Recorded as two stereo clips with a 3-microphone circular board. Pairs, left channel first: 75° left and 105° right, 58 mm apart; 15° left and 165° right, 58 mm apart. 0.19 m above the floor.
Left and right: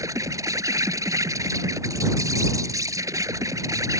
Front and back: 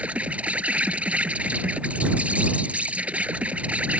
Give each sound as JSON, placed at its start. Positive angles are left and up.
{"t": 0.0, "sound": "an insect", "azimuth_deg": -100}